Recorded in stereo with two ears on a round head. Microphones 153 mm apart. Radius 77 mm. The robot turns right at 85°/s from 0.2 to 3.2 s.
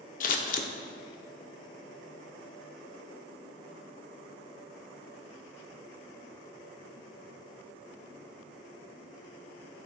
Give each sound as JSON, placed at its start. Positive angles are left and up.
{"t": 0.2, "sound": "scissors", "side_deg": 50, "distance_m": 0.7}